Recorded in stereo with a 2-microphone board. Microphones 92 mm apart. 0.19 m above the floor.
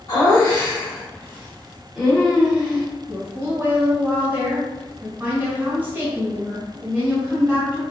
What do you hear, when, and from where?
0.1 s laughter: 30° left (ahead or behind), 1.5 m; by 2.9 s 10° right (ahead or behind), 1.4 m
3.1 s a woman speaking: 20° right (ahead or behind), 1.2 m